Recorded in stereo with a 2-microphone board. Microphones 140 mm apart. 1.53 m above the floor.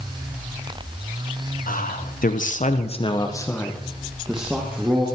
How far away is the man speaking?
About 2 m.